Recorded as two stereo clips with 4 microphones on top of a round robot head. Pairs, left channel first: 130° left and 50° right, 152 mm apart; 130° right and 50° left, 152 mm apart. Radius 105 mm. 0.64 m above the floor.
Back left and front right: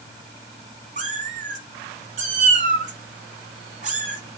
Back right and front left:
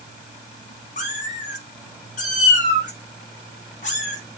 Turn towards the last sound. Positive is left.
turn(degrees=-95)